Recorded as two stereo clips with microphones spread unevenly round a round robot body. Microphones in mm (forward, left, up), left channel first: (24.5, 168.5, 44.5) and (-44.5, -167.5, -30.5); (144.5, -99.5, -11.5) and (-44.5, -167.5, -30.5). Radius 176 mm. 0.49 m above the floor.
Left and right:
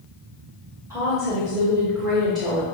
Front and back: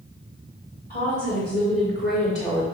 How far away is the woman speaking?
About 2.5 m.